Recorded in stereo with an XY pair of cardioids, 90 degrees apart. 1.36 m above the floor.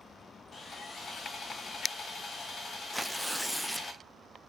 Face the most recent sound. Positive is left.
turn(degrees=5)